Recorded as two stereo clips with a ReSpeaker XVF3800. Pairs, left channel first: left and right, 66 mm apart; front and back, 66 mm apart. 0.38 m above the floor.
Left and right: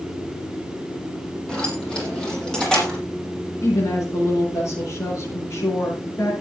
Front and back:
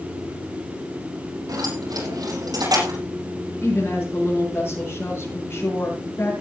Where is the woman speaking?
55° left, 7.5 m.